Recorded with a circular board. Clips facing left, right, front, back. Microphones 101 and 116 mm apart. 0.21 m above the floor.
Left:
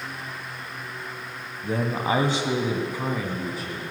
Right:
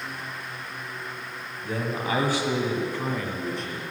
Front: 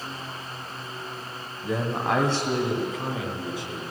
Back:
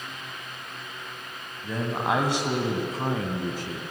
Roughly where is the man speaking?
Left.